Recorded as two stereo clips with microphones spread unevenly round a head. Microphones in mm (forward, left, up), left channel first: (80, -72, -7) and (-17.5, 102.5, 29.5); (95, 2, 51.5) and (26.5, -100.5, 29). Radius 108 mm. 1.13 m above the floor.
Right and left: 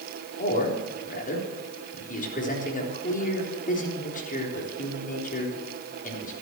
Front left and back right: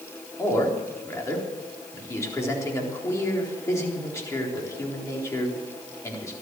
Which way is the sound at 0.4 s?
10° right.